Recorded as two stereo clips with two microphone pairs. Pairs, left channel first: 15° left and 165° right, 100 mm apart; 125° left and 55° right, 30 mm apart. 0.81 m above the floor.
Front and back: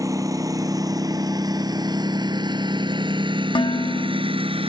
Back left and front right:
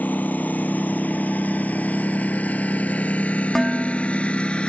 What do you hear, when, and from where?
0.0 s a lawn mower: 140° left; by 4.7 s 175° left
3.5 s dishes clattering: 40° left